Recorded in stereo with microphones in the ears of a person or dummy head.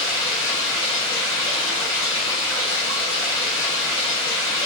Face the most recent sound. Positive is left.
turn(degrees=20)  # may be behind; listen again after turning